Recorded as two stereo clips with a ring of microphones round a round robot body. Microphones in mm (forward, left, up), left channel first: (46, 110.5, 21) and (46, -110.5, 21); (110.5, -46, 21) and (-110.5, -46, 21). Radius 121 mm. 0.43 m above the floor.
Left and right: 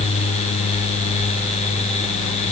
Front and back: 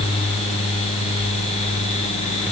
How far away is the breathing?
I don't hear breathing.